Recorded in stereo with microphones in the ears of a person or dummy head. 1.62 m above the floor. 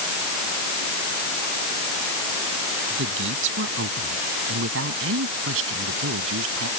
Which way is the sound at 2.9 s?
65° right (ahead or behind).